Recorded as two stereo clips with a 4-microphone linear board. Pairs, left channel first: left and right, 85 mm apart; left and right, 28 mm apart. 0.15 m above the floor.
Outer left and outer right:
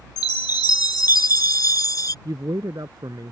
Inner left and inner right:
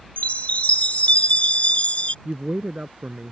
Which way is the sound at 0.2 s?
50° left (ahead or behind).